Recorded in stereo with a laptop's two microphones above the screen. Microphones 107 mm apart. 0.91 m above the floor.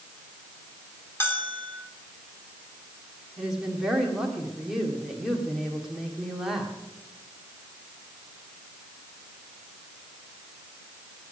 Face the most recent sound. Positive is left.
turn(degrees=-5)  # may be behind; listen again after turning